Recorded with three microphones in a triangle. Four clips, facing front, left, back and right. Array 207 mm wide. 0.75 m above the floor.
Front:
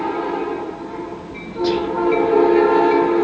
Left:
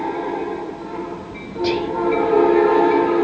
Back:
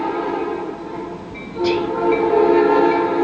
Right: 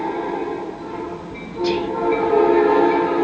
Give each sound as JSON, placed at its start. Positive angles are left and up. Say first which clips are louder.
{"t": 1.6, "sound": "whispering", "louder": "even, back 1 dB", "azimuth_deg": 80, "distance_m": 1.9}